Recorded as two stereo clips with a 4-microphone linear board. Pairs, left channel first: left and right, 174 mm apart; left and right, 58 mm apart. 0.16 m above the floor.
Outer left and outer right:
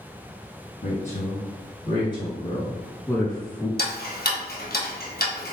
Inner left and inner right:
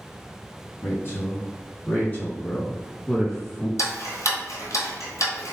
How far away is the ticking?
About 1.0 m.